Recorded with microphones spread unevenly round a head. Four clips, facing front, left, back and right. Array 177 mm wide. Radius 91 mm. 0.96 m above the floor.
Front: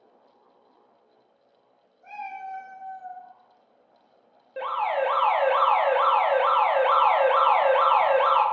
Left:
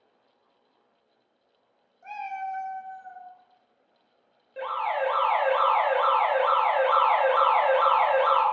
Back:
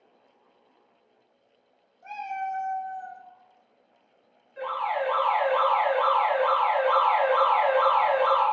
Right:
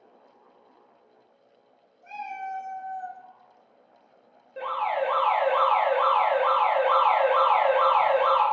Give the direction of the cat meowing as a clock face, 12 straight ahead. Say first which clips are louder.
Left 2 dB, back 4 dB; 7 o'clock.